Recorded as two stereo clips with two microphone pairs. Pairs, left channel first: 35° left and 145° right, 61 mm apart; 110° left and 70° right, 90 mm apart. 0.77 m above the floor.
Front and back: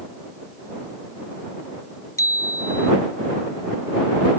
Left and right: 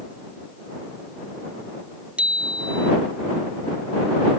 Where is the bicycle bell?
10° left.